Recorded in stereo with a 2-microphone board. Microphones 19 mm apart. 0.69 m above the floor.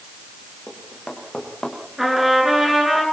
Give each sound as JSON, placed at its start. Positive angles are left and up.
{"t": 0.7, "sound": "running footsteps", "side_deg": 40, "distance_m": 8.0}
{"t": 2.0, "sound": "a trumpet", "side_deg": -15, "distance_m": 8.0}